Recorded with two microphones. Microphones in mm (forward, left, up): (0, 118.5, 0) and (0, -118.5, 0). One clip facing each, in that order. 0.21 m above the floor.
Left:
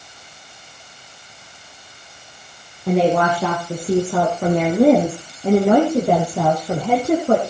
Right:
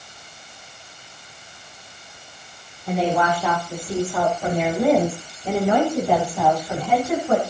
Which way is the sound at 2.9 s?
80° left.